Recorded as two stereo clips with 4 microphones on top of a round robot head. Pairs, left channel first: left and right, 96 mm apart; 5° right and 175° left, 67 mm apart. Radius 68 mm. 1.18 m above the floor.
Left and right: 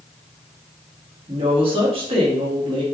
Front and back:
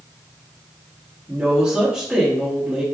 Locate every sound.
1.3 s a woman speaking: 105° right, 1.3 m